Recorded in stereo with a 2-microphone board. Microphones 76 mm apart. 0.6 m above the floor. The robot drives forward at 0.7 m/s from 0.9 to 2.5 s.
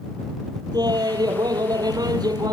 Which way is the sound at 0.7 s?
75° right (ahead or behind).